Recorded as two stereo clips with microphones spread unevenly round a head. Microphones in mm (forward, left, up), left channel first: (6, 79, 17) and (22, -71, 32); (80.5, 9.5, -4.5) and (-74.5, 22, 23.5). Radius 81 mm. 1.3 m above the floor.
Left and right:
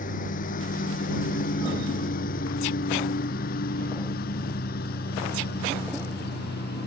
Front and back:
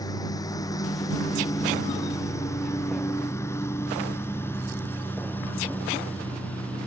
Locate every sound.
0.0 s a lawn mower: 65° left; by 6.9 s 80° left